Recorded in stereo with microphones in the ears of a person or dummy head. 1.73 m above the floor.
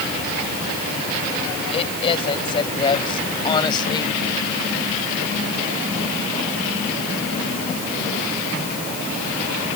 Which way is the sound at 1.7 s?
30° left (ahead or behind).